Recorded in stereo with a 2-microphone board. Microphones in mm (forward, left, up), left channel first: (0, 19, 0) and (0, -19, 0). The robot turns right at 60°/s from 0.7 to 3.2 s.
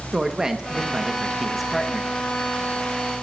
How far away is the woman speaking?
About 0.8 m.